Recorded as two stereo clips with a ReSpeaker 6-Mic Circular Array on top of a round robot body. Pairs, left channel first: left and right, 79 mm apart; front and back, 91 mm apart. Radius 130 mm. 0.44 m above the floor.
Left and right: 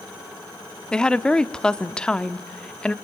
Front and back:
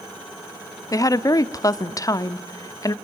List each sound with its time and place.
0.9 s a woman speaking: 15° left, 1.0 m